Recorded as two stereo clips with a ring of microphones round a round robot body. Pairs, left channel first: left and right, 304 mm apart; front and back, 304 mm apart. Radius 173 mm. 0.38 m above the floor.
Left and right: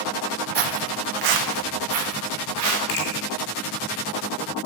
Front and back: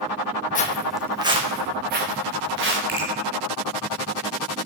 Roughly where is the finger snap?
Behind left.